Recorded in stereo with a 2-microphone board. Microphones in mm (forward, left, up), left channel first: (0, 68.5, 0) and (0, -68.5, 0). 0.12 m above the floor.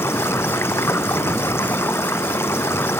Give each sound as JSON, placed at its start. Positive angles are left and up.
{"t": 0.0, "sound": "running water", "side_deg": 20}